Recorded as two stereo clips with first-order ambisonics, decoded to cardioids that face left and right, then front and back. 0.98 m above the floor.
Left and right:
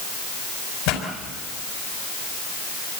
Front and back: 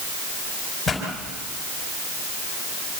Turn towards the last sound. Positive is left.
turn(degrees=80)